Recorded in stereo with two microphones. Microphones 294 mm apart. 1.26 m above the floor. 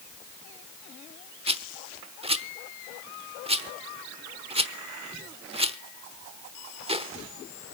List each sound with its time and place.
1.5 s a rattle: 20° right (ahead or behind), 0.9 m